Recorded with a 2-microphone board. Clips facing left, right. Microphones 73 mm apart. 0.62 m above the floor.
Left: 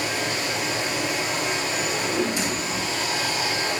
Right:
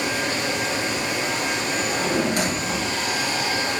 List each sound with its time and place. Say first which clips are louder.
0.0 s running water: right 2 dB; 55° right (ahead or behind), 4.5 m
1.8 s a drawer: right 3 dB; 60° right (ahead or behind), 1.3 m